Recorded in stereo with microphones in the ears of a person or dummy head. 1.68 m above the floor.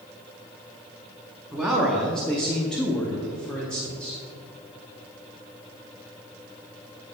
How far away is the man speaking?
About 0.9 m.